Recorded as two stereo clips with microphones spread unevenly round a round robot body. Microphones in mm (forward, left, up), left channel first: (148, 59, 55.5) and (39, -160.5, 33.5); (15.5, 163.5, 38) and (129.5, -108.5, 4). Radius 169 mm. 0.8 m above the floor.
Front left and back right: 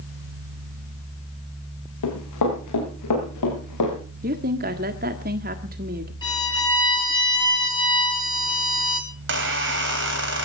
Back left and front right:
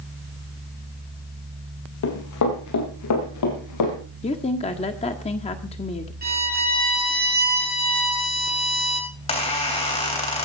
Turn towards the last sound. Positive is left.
turn(degrees=-175)